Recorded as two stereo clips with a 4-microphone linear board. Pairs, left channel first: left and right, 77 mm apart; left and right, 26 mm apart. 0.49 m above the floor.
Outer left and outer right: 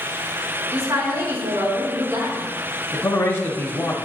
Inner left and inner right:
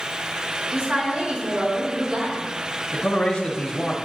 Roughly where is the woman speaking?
Right.